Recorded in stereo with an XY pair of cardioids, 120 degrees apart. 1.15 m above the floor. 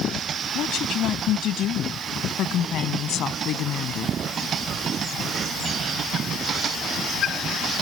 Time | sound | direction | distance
0.6 | a woman speaking | 65° left | ?